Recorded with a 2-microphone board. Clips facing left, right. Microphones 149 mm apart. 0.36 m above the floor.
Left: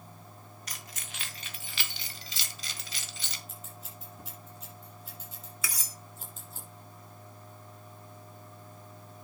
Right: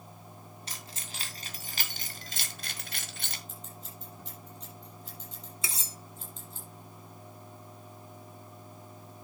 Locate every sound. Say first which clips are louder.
0.7 s keys jangling: right 1 dB; 30° right (ahead or behind), 2.5 m; by 3.4 s 55° right (ahead or behind), 1.6 m
3.5 s scissors: right 1 dB; 5° left (ahead or behind), 5.5 m
5.6 s cutlery clinking: right 1 dB; 25° right (ahead or behind), 0.7 m